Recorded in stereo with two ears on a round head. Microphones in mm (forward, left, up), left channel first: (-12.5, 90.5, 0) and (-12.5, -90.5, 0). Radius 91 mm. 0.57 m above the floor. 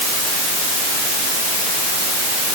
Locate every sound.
Only background noise.